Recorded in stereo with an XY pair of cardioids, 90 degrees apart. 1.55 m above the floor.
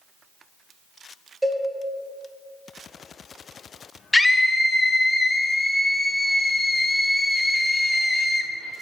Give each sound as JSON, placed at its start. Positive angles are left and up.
{"t": 1.4, "sound": "a cowbell", "azimuth_deg": -15, "distance_m": 2.0}
{"t": 4.1, "sound": "a scream", "azimuth_deg": 15, "distance_m": 1.0}